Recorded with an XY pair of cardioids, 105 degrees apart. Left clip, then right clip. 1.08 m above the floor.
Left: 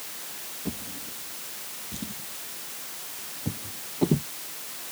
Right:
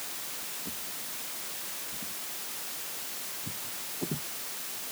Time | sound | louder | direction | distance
0.7 | a drawer | left 3 dB | 70° left | ?